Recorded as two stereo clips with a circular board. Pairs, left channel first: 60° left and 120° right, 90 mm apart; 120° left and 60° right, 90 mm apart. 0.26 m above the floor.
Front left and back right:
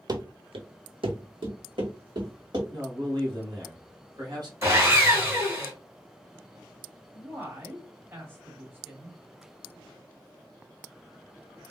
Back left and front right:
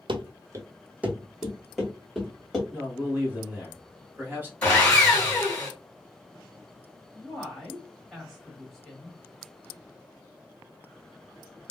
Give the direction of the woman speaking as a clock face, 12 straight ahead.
5 o'clock.